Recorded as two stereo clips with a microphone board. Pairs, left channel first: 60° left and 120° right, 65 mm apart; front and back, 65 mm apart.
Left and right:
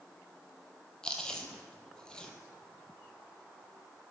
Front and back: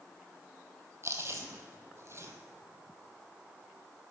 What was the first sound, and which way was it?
Chewing, 140° left.